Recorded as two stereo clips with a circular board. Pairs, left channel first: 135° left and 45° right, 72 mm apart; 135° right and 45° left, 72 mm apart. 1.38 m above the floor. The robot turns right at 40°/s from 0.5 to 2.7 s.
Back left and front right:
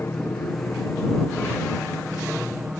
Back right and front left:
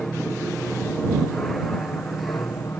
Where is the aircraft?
150° left; by 2.8 s 120° right.